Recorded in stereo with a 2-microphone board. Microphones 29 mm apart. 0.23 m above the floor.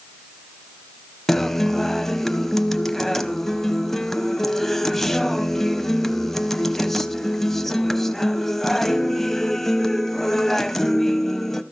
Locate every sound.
1.3 s a guitar: 10° left (ahead or behind), 0.7 m